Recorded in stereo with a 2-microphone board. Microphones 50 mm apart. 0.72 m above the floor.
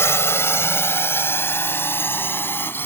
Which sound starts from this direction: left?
A drone, at 0.0 s.